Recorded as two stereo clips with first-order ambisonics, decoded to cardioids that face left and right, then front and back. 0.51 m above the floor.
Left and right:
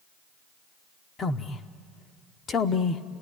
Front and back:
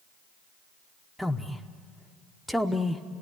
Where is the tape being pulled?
I don't hear tape being pulled.